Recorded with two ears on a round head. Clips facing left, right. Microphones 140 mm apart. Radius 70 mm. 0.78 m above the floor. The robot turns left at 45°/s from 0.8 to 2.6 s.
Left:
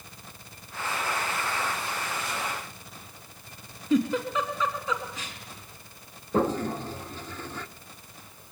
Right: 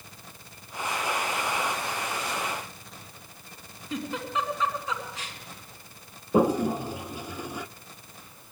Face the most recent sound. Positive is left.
turn(degrees=-10)  # may be behind; listen again after turning